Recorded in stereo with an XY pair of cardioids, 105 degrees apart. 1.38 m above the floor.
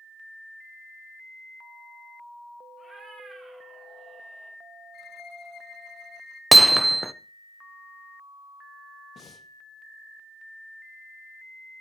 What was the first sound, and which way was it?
A cat meowing, 20° right.